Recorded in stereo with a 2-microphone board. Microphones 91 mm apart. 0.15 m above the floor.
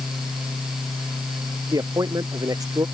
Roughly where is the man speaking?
Right.